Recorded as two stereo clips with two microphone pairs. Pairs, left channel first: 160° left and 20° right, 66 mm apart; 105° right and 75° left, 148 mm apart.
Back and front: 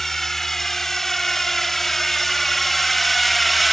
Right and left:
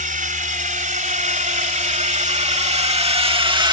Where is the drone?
75° left; by 3.7 s 70° left.